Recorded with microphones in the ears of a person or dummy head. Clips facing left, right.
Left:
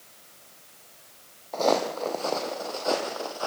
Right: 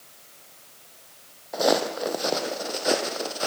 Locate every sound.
1.5 s footsteps: 15° right (ahead or behind), 3 m; by 3.5 s 30° right (ahead or behind), 3.5 m